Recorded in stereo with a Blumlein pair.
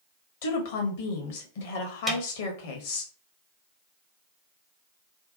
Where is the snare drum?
15° right, 0.7 m.